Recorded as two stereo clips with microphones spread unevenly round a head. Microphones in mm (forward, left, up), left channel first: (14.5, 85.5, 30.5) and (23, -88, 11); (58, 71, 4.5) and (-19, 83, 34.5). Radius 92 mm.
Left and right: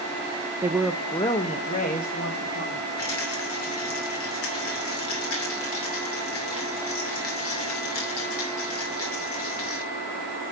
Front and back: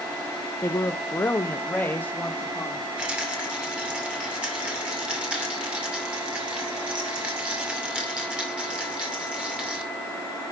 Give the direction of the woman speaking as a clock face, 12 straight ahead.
1 o'clock.